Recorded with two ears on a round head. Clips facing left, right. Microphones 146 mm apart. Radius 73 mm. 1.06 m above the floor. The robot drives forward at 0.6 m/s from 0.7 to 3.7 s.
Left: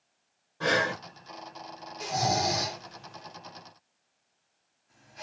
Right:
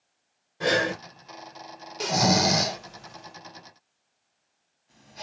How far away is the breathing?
About 1.6 m.